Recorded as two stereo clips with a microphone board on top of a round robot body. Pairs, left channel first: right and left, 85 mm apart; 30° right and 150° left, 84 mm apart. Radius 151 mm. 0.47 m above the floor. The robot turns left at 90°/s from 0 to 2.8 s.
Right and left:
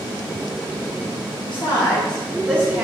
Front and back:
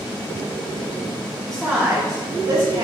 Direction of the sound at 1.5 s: 105° right.